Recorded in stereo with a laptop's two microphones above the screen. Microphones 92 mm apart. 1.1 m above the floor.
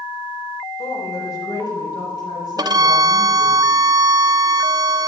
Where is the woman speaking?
40° left (ahead or behind), 3.5 m; by 3.6 s 45° left (ahead or behind), 7.5 m.